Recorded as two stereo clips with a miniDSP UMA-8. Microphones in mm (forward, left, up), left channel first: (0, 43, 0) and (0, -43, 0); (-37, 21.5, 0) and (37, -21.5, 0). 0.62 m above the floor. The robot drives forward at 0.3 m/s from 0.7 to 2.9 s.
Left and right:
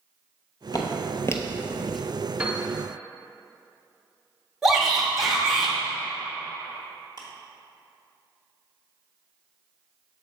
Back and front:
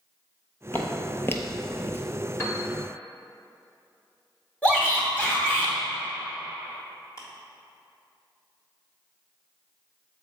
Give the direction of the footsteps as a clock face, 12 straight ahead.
9 o'clock.